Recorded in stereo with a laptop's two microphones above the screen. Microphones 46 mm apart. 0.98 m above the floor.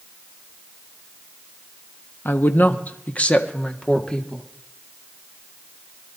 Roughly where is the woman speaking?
Left.